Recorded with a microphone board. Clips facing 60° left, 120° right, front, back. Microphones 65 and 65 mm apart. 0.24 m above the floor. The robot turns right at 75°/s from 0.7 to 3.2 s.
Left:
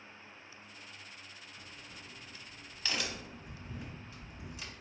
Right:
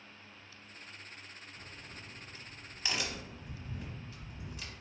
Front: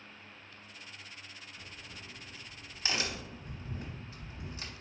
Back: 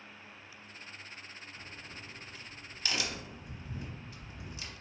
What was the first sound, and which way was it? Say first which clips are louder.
A crack: right 2 dB, back 1 dB; 145° right.